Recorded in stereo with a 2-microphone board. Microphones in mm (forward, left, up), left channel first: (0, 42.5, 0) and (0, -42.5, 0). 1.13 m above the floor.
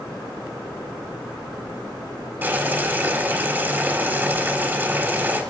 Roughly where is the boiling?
Right.